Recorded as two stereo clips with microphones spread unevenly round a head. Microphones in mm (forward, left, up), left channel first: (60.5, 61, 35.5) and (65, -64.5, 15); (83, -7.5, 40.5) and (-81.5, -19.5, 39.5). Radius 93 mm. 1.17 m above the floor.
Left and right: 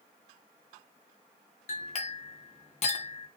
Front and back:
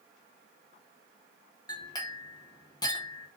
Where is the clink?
70° left, 0.5 m.